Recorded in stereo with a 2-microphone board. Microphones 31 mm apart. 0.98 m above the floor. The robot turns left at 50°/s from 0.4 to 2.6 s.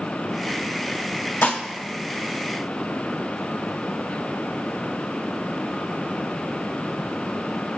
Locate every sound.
1.4 s dishes clattering: 65° left (ahead or behind), 1.1 m; by 1.6 s 55° left (ahead or behind), 1.1 m